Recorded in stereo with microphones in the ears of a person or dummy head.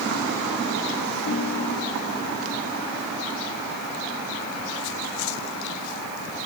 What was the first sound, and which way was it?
A ringtone, 55° left (ahead or behind).